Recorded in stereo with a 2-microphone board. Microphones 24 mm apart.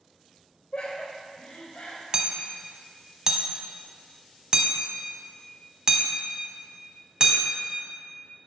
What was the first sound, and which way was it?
Laughter, 50° left (ahead or behind).